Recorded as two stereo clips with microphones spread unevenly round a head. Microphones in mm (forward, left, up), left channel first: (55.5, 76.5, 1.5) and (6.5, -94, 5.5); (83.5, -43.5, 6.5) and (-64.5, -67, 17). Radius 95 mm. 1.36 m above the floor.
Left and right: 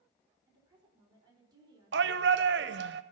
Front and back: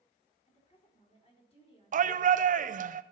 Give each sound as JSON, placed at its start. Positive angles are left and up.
{"t": 0.5, "sound": "a woman speaking", "azimuth_deg": -40, "distance_m": 4.5}
{"t": 1.9, "sound": "a shout", "azimuth_deg": -140, "distance_m": 0.7}